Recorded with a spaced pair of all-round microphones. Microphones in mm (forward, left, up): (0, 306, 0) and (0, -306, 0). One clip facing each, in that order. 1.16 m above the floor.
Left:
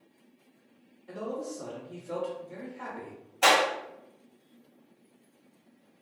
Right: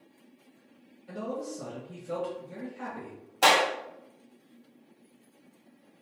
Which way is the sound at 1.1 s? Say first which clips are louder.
Even; 45° right (ahead or behind).